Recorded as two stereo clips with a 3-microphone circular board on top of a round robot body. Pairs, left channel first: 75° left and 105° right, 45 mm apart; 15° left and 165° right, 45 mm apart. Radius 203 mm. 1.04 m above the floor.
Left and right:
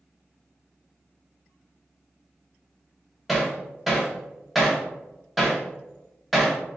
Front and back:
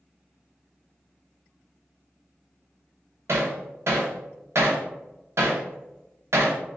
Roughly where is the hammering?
Behind.